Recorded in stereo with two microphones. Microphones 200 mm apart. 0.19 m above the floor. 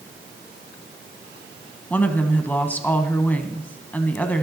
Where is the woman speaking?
10° left (ahead or behind), 1.2 m.